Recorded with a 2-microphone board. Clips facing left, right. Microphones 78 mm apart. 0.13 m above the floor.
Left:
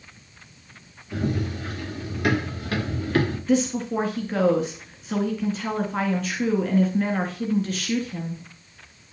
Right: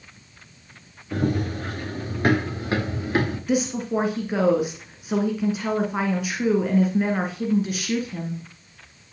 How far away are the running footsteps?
About 4 m.